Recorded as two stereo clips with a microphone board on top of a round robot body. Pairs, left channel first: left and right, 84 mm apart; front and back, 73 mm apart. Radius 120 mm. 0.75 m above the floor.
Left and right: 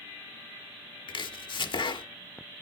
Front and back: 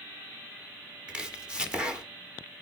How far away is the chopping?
About 1.5 m.